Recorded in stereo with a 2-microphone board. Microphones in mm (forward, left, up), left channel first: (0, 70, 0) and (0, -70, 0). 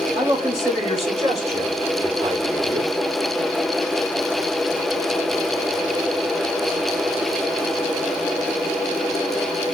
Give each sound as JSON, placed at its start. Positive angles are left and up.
{"t": 0.1, "sound": "a man speaking", "side_deg": -50, "distance_m": 3.0}